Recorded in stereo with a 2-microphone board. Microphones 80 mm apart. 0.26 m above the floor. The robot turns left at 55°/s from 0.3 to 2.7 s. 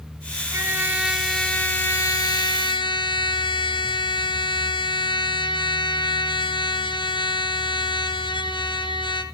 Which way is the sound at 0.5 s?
140° right.